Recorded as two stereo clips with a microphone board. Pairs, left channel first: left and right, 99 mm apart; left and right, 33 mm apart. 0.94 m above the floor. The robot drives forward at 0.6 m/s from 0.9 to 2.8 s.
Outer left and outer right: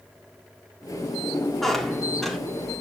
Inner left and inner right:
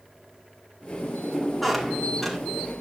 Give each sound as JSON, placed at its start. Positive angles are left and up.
{"t": 1.6, "sound": "a squeak", "side_deg": 0, "distance_m": 1.8}